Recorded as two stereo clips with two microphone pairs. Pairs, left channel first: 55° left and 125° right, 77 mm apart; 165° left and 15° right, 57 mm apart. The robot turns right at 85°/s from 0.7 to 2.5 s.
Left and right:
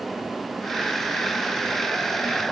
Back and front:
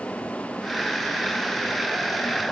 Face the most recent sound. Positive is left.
No sound to turn to.